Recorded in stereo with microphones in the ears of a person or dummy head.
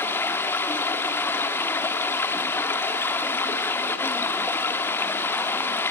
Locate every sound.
0.0 s running water: 15° left (ahead or behind), 1.1 m